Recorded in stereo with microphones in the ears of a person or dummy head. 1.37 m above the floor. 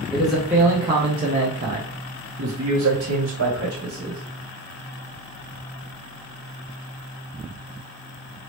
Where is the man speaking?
Centre (ahead or behind), 1.0 m; by 4.2 s 80° right, 1.6 m.